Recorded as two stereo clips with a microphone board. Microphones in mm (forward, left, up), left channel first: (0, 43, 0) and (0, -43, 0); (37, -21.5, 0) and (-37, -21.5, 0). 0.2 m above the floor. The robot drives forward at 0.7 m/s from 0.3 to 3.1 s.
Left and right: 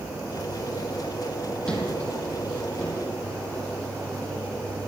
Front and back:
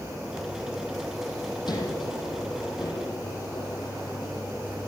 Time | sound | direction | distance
1.7 | a sliding door | 15° left | 7.5 m